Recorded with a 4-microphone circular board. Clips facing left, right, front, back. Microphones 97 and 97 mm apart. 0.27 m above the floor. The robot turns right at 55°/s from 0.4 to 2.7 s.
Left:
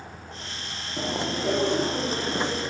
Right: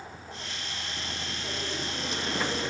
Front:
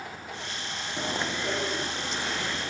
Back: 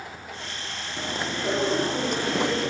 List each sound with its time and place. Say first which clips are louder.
1.0 s chewing: left 15 dB, back 1 dB; 80° left; by 2.7 s 175° left